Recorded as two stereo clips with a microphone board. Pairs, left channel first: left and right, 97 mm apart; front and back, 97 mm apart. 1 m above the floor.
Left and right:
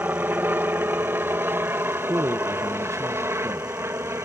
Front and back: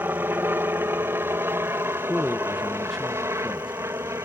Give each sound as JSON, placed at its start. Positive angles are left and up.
{"t": 0.0, "sound": "a helicopter", "azimuth_deg": -135}
{"t": 2.1, "sound": "a man speaking", "azimuth_deg": -90}